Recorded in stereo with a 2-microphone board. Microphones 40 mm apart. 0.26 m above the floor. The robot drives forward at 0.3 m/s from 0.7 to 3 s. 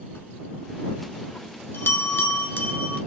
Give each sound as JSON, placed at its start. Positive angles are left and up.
{"t": 0.1, "sound": "a bell", "side_deg": 80, "distance_m": 0.9}